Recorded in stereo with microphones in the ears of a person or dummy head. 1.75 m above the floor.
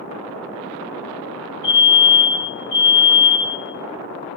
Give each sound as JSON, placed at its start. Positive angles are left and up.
{"t": 1.6, "sound": "a fire alarm", "side_deg": 50, "distance_m": 6.5}